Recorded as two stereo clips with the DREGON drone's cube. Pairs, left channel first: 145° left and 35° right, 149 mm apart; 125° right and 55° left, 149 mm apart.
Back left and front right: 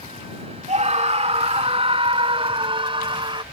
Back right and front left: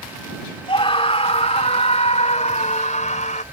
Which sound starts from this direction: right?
A scream, at 0.7 s.